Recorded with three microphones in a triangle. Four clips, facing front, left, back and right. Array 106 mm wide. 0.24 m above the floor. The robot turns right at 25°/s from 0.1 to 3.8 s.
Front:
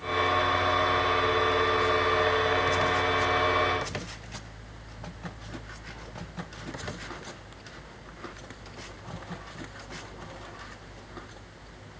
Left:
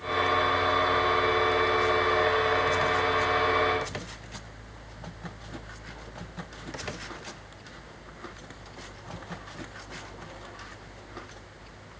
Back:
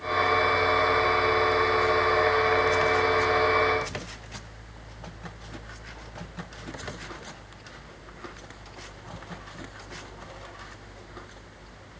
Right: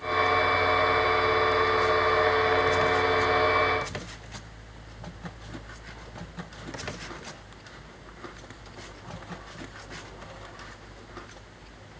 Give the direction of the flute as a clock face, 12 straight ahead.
No flute in this recording.